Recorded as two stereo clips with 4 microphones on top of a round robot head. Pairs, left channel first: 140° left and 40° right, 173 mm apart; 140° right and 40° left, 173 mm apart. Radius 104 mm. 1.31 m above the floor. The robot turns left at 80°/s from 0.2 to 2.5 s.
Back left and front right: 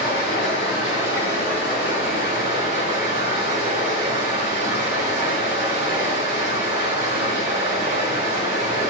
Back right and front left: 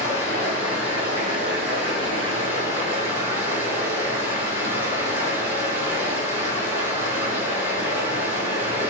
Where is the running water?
165° left, 1.6 m; by 8.9 s 15° right, 1.6 m.